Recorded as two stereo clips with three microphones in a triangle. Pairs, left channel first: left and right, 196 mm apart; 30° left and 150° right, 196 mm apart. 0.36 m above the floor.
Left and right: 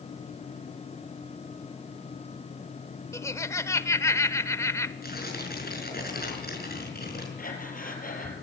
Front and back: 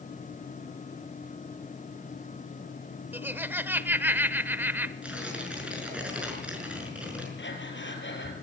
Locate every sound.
3.1 s laughter: 145° left, 0.9 m
5.0 s tearing paper: 125° left, 5.5 m
7.4 s breathing: 45° left, 4 m